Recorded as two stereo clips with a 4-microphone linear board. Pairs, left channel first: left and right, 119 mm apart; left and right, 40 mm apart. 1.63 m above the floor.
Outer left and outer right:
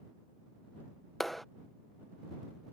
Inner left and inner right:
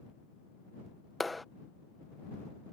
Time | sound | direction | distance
1.2 | a clap | centre (ahead or behind) | ?